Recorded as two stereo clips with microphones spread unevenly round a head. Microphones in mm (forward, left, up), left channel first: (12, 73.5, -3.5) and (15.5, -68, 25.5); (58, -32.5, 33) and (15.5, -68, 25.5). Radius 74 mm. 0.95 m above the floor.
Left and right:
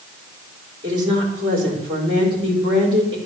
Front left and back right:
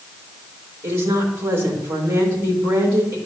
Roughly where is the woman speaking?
Behind right.